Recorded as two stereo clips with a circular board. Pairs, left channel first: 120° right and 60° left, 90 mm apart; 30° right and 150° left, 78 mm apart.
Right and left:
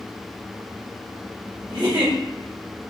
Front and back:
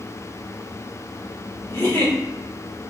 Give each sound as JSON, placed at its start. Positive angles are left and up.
{"t": 1.7, "sound": "a giggle", "azimuth_deg": 30, "distance_m": 1.4}